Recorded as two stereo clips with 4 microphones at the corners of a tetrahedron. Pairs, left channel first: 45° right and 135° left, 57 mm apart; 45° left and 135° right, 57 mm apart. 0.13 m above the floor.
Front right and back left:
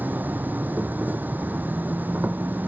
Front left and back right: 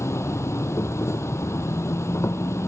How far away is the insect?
About 0.8 m.